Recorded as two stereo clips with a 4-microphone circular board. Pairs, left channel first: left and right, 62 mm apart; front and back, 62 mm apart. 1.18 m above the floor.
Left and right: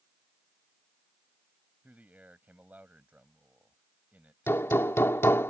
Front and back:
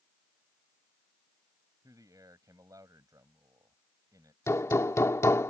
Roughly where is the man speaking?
Behind right.